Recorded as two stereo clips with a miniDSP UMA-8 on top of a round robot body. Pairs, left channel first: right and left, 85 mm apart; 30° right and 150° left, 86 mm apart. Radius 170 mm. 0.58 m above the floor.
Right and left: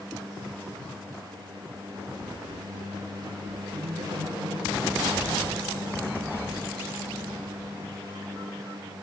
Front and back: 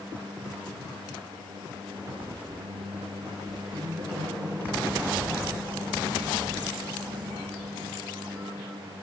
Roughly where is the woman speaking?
Behind left.